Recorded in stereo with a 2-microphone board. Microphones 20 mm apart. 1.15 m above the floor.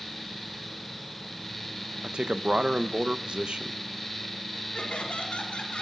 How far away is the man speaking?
About 0.7 m.